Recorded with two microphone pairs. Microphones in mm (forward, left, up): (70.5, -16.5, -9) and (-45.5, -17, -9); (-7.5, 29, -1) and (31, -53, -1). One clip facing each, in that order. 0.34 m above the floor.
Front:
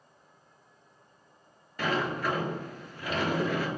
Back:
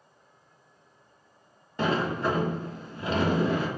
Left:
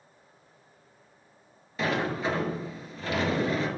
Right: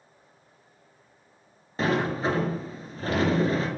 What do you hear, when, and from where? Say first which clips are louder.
1.8 s a sliding door: back 3 dB, right 3 dB; 115° right, 1.0 m